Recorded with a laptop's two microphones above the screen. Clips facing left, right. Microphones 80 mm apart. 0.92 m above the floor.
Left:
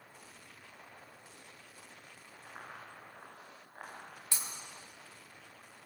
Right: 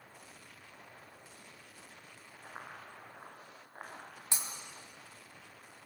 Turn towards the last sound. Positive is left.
turn(degrees=-20)  # may be behind; listen again after turning